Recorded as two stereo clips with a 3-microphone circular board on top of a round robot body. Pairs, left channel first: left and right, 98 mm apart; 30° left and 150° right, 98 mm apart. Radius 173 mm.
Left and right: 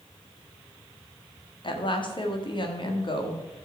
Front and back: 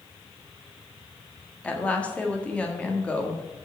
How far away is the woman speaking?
About 1.9 m.